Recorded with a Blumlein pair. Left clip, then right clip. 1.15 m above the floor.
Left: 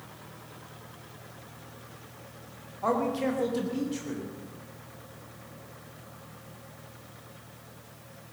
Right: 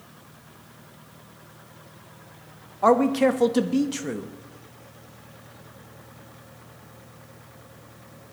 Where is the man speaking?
30° right, 1.1 m.